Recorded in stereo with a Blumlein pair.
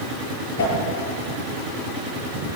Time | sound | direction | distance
0.6 | a whoosh | 55° left | 9 m